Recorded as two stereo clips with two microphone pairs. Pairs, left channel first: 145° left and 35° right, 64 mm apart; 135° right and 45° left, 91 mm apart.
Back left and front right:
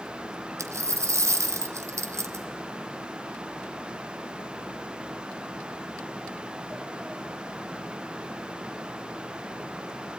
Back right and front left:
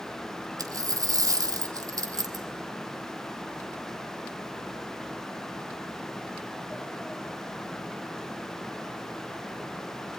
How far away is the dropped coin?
About 1.4 m.